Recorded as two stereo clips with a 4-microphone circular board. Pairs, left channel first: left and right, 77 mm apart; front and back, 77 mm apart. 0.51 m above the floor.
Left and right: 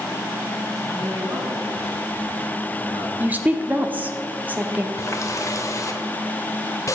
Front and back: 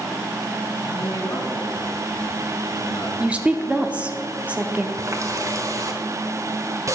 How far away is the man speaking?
About 4 m.